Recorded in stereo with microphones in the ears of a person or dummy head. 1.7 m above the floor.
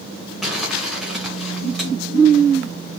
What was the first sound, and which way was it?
Crumpling, centre (ahead or behind).